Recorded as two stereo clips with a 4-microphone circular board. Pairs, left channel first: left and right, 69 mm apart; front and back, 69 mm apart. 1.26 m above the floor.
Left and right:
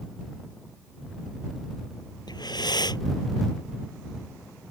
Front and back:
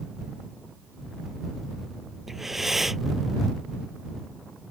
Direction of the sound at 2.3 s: 95° left.